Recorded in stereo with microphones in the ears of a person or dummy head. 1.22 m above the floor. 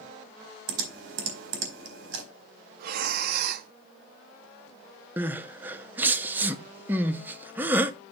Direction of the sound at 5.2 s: 15° right (ahead or behind).